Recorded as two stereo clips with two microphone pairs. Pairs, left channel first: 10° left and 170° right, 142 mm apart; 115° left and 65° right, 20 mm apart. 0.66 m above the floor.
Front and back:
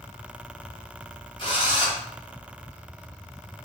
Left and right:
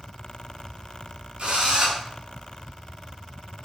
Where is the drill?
40° right, 4 m.